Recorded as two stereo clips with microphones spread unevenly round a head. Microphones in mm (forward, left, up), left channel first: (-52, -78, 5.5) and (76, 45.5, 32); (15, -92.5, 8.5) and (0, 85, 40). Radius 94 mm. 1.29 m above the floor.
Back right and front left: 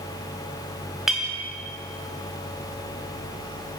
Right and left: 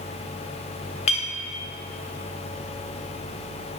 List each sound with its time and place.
1.1 s a clink: 35° right, 0.7 m